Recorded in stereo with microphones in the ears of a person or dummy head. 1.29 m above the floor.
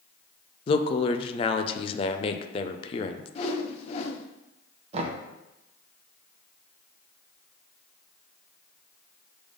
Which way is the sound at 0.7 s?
35° left (ahead or behind).